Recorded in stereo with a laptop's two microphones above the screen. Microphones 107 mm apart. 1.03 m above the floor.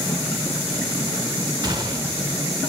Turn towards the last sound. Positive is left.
turn(degrees=-45)  # may be behind; listen again after turning